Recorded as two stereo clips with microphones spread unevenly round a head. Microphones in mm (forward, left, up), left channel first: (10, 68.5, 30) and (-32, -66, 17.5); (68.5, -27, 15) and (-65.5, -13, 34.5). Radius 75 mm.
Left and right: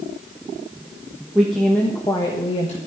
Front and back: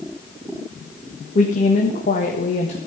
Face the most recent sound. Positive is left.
turn(degrees=30)